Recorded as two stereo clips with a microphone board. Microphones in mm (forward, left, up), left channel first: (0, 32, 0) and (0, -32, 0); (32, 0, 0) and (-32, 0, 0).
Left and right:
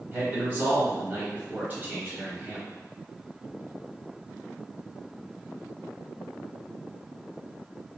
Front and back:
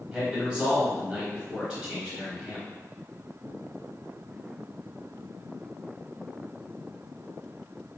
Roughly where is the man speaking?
Behind right.